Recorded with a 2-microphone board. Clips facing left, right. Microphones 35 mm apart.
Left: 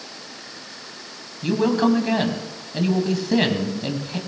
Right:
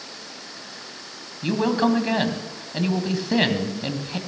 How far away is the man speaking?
About 1.6 m.